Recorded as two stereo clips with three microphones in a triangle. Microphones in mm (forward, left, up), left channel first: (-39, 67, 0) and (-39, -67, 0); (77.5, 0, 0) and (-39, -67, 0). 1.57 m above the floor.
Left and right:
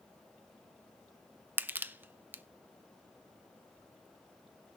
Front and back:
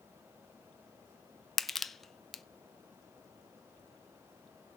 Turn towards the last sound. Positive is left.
turn(degrees=-55)